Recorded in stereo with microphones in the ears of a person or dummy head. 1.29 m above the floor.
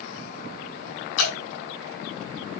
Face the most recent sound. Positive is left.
turn(degrees=80)